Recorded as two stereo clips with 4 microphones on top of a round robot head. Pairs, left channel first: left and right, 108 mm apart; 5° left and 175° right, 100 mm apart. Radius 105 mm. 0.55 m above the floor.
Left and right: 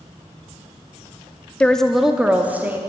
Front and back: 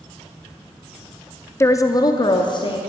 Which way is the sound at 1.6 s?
25° left.